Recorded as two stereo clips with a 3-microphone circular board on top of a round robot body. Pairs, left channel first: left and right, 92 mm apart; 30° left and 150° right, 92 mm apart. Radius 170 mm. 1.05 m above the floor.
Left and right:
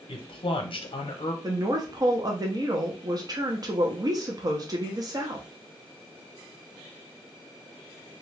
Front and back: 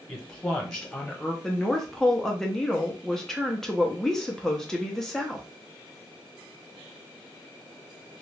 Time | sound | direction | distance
0.1 | a man speaking | 115° left | 0.8 m
1.4 | a woman speaking | 55° right | 0.8 m